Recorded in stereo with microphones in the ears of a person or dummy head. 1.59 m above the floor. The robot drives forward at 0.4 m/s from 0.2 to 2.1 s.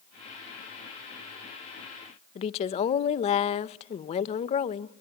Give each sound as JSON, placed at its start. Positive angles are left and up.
{"t": 2.4, "sound": "a woman speaking", "side_deg": 35, "distance_m": 0.5}